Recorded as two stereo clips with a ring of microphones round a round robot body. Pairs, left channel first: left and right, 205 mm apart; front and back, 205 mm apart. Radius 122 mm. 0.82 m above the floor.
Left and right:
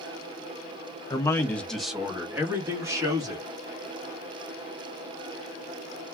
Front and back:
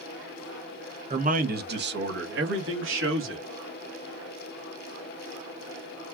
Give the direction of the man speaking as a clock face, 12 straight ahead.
7 o'clock.